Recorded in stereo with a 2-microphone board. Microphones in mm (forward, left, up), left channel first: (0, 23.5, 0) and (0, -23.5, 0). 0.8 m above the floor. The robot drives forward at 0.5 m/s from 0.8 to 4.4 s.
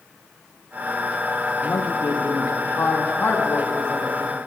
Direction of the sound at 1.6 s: 55° left (ahead or behind).